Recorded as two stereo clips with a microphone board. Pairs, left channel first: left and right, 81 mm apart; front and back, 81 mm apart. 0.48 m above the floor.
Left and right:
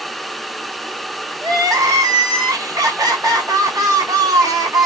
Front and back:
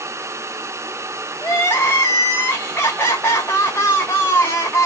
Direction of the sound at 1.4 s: 60° right.